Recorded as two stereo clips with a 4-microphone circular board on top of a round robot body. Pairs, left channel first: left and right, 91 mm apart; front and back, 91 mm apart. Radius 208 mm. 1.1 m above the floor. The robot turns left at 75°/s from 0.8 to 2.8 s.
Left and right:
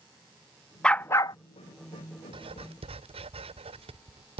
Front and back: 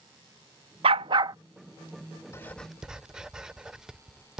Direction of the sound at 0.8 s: 170° left.